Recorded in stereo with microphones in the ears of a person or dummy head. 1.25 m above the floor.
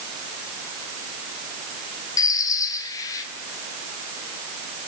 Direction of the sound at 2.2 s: 20° left (ahead or behind).